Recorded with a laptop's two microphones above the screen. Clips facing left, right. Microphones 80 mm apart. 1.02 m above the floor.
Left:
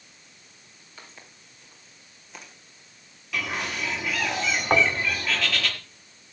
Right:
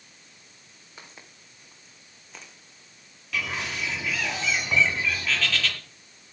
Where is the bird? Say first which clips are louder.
Left 1 dB; 5° left (ahead or behind), 7.5 m.